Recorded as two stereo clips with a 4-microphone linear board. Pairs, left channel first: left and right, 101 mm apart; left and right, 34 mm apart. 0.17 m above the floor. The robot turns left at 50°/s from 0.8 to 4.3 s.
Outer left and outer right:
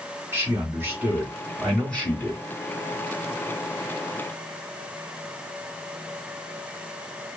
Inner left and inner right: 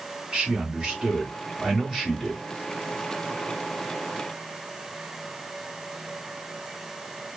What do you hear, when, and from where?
0.3 s a man speaking: 140° right, 1.5 m; by 2.4 s 140° left, 1.5 m